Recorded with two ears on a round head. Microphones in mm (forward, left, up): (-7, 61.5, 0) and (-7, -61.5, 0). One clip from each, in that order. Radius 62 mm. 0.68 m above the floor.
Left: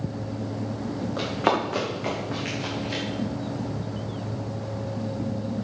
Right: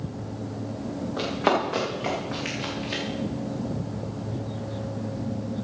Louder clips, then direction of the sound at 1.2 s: Even; 20° left (ahead or behind).